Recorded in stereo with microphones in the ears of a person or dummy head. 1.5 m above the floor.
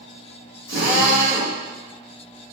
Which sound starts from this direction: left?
A drill, at 0.7 s.